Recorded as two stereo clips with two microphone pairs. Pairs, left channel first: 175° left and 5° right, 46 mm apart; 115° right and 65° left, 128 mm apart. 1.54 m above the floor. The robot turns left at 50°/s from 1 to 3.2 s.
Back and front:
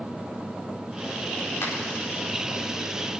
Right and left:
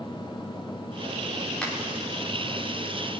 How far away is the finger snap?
About 4.5 m.